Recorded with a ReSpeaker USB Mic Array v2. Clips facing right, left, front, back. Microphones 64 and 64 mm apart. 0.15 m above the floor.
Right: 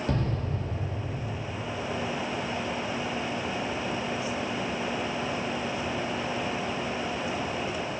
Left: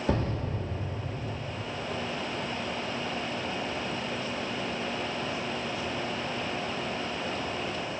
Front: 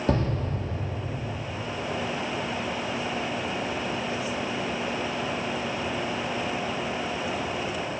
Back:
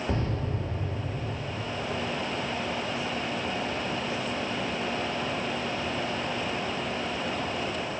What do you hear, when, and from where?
0.1 s an explosion: 5° left, 1.1 m